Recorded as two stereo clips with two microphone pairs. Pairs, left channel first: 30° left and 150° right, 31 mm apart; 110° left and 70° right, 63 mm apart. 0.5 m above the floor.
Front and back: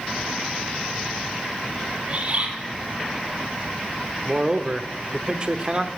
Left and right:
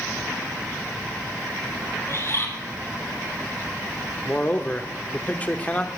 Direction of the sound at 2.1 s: 160° left.